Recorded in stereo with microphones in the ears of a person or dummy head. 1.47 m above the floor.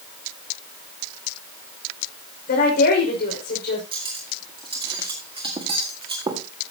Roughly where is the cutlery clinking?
Right.